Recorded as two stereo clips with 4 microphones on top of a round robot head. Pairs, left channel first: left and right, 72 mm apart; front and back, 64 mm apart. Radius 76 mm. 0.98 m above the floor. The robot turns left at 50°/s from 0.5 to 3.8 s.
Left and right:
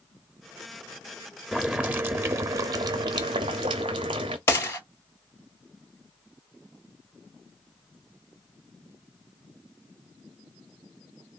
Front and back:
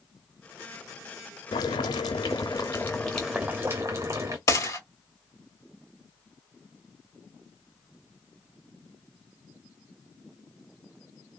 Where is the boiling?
Straight ahead, 0.6 m; by 4.4 s 115° right, 0.6 m.